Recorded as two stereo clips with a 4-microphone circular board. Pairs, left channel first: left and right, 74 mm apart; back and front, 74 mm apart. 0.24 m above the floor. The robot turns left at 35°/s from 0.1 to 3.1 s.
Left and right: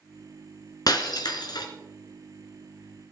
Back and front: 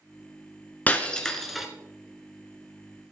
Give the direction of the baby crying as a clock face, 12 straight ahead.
I don't hear a baby crying.